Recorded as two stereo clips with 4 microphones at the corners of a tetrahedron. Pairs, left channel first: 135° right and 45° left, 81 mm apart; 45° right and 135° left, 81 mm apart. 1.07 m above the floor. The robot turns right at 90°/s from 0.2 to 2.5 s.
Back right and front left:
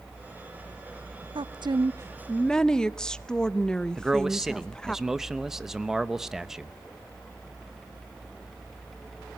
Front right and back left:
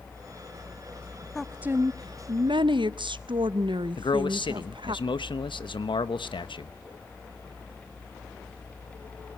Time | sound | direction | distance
1.4 | a woman speaking | 40° left | 0.7 m
4.0 | a man speaking | 40° right | 0.9 m